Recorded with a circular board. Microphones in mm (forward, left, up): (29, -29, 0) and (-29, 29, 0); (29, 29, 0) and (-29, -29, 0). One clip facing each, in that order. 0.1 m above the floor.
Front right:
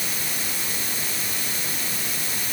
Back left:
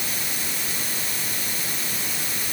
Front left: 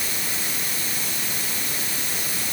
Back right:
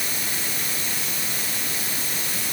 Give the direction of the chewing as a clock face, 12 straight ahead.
I don't hear chewing.